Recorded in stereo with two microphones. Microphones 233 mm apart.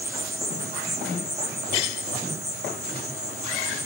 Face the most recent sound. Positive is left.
turn(degrees=-45)  # may be behind; listen again after turning